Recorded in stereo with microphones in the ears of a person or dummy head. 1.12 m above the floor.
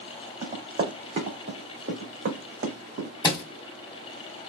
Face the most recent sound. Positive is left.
turn(degrees=20)  # may be behind; listen again after turning